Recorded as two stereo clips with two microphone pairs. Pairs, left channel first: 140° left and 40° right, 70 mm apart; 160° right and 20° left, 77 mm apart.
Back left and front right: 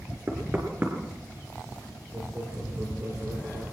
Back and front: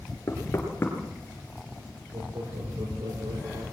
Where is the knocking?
100° right, 4.5 m.